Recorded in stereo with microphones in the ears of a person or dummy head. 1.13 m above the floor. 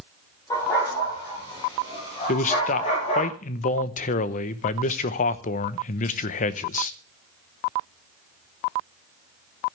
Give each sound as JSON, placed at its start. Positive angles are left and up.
{"t": 0.5, "sound": "a dog barking", "side_deg": 20, "distance_m": 9.5}
{"t": 2.3, "sound": "a man speaking", "side_deg": 40, "distance_m": 0.9}